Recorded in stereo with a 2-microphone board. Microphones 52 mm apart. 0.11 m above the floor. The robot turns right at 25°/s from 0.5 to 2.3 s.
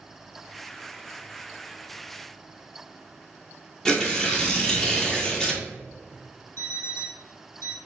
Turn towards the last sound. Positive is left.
turn(degrees=55)  # may be behind; listen again after turning